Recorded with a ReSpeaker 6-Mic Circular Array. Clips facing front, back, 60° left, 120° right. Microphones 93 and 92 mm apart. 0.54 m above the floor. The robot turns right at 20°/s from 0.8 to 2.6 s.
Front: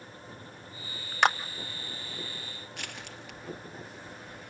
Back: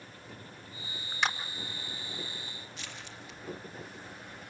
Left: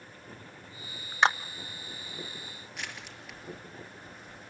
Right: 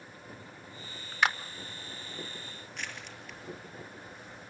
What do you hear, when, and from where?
1.2 s a clap: straight ahead, 0.9 m; by 1.4 s 5° left, 0.9 m
2.7 s crushing: 25° right, 4.5 m